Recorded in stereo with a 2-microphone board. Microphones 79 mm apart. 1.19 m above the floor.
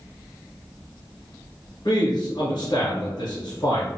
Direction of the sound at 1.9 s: 60° left (ahead or behind).